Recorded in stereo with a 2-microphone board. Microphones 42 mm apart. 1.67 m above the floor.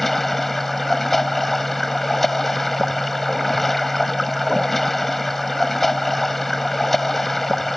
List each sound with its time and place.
0.0 s running water: 5° left (ahead or behind)